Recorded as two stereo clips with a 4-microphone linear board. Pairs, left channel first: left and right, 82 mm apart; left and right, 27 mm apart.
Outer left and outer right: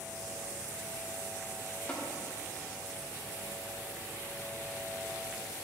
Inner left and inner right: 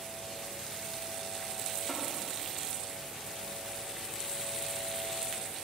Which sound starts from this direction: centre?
Tapping, at 1.9 s.